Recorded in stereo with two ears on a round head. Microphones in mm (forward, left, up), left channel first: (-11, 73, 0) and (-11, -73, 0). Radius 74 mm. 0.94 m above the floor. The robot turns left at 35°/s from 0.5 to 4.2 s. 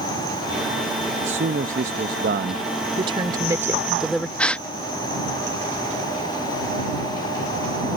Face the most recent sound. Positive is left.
turn(degrees=5)  # may be behind; listen again after turning